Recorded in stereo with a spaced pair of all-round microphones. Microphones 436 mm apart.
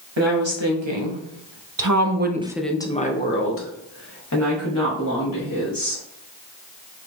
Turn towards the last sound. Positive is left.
turn(degrees=50)  # may be behind; listen again after turning